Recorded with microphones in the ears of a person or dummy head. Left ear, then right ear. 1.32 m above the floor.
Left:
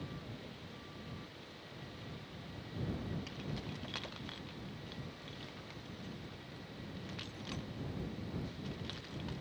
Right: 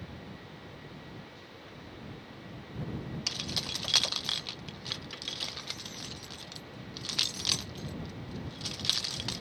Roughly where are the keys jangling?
Right.